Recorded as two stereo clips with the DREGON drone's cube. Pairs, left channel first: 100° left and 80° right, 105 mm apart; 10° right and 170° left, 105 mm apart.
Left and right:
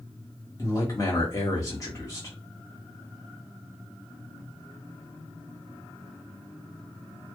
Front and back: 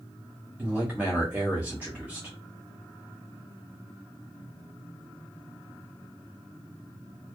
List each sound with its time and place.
0.6 s a man speaking: 105° left, 1.0 m